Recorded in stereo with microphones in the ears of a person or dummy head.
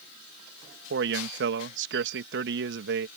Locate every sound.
0.9 s a man speaking: 60° right (ahead or behind)